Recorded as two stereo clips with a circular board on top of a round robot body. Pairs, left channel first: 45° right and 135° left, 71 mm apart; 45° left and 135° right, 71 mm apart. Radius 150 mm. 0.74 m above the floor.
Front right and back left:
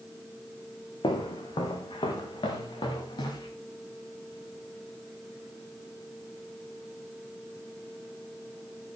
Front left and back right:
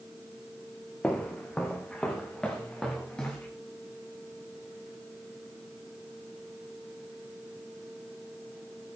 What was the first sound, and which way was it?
Footsteps, 35° right.